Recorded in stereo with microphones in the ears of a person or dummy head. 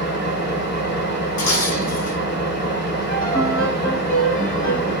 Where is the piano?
45° left (ahead or behind), 2 m.